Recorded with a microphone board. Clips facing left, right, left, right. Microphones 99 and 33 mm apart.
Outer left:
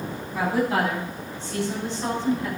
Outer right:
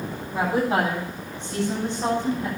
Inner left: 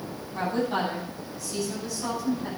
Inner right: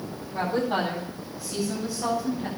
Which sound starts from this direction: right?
A woman speaking, at 0.3 s.